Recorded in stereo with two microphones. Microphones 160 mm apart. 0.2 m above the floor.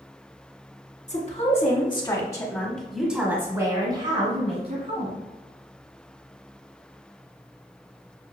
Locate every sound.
1.1 s a woman speaking: 45° left (ahead or behind), 1.5 m; by 5.2 s 50° right (ahead or behind), 1.7 m